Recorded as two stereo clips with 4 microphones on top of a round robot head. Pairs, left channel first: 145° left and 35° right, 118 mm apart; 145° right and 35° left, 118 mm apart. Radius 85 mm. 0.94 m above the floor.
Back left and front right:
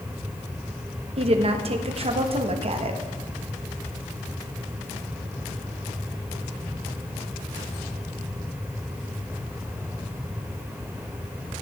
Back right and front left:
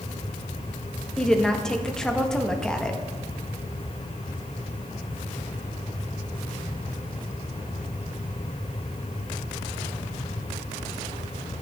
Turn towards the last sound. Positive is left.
turn(degrees=-60)